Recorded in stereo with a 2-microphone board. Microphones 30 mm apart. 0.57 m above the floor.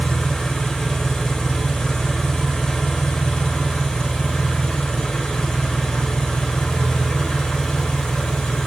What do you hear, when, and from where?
0.0 s an engine running: 20° left (ahead or behind), 1.0 m